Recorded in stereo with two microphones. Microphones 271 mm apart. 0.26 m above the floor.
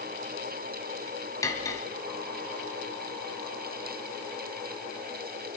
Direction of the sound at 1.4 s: 10° left (ahead or behind).